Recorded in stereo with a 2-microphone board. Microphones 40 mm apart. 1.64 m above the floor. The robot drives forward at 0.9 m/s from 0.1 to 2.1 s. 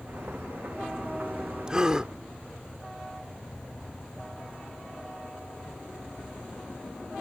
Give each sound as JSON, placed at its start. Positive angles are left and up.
{"t": 1.7, "sound": "a gasp", "side_deg": -15}